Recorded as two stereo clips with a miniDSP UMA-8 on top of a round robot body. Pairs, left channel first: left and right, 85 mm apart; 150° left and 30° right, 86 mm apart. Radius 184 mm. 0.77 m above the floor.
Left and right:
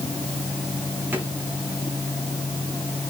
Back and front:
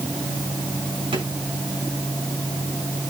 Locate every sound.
1.1 s a drawer: 20° right, 5.5 m